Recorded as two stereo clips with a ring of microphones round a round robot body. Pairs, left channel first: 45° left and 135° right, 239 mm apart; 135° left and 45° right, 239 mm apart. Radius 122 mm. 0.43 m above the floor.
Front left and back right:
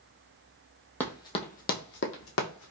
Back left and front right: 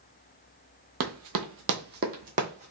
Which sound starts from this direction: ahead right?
Running footsteps, at 1.0 s.